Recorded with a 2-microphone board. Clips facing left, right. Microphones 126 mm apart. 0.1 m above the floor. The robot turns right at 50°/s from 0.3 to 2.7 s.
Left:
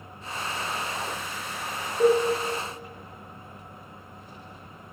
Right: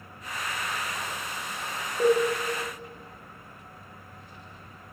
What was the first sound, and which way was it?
A cowbell, centre (ahead or behind).